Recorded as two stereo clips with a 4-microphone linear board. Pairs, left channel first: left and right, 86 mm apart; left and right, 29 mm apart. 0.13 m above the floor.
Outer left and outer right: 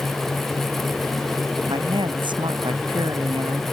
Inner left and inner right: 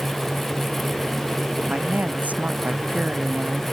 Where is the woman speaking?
65° right (ahead or behind).